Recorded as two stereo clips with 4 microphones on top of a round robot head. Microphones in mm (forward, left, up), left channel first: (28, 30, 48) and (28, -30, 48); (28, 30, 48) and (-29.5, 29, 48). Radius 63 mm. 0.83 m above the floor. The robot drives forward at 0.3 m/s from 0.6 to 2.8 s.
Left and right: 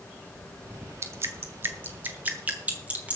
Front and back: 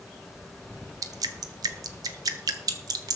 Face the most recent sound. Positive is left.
turn(degrees=-160)